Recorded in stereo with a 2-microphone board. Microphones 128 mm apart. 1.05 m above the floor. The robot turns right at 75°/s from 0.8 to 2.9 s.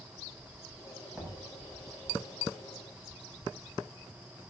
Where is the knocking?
10° right (ahead or behind), 7 m; by 1.4 s 10° left (ahead or behind), 7 m.